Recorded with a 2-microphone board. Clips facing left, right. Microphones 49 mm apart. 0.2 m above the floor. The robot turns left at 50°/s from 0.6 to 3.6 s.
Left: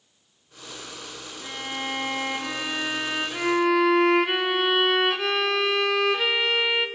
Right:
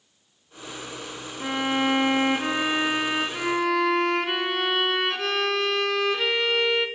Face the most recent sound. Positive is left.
turn(degrees=175)